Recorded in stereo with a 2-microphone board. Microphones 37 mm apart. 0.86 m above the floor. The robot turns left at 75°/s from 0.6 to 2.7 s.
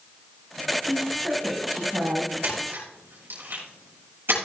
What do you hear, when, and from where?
0.9 s a woman speaking: 15° left, 4 m; by 2.3 s 95° right, 4 m
2.4 s a splash: 75° right (ahead or behind), 6 m; by 4.3 s 85° right, 6 m